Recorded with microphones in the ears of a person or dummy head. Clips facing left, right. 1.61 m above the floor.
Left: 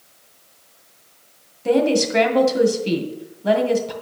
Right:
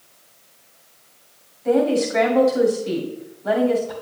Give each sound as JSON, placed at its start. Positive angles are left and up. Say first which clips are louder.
{"t": 1.6, "sound": "a woman speaking", "louder": "left 1 dB", "side_deg": 40, "distance_m": 1.6}